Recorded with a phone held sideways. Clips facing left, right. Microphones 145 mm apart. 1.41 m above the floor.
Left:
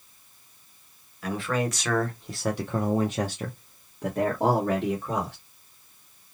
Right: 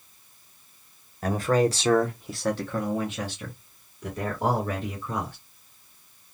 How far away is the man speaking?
About 0.8 m.